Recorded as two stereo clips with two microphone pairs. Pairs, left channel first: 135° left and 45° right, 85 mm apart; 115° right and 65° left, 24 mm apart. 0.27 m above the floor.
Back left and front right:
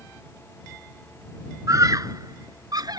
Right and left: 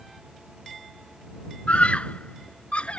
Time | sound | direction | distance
1.7 | a scream | 90° right | ?